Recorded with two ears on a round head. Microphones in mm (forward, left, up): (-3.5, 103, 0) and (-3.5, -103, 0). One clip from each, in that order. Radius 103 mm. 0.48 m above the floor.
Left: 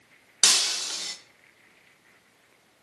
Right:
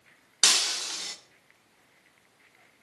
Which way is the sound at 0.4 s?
Centre (ahead or behind).